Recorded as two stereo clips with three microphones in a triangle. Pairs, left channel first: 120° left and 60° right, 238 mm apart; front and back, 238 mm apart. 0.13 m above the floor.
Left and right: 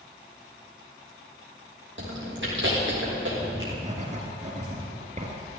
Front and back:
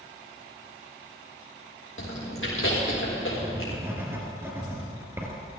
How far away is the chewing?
About 5.5 m.